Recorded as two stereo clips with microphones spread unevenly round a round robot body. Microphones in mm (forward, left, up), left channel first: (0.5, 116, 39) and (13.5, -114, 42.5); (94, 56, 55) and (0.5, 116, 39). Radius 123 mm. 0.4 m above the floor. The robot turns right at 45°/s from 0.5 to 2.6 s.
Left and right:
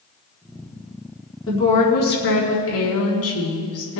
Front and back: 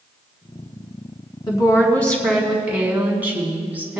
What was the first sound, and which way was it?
A woman speaking, 20° left.